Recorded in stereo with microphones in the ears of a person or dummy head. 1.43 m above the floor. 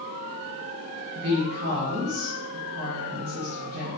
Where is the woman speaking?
50° right (ahead or behind), 1.2 m.